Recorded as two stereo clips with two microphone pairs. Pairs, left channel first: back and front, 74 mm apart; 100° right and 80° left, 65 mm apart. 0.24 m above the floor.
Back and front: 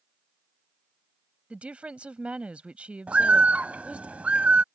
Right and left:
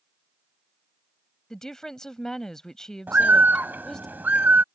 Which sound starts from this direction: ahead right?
A woman speaking, at 1.5 s.